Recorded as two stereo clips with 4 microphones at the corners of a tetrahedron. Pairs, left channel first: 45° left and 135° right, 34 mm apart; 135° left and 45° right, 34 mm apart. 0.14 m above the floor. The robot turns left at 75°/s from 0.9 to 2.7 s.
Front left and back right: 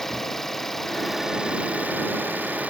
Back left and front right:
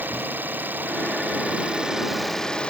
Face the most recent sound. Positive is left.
turn(degrees=-170)